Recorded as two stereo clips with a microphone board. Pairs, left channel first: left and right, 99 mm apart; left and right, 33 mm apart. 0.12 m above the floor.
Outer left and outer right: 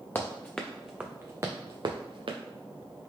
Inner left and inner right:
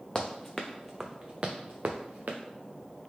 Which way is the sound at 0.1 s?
25° left (ahead or behind).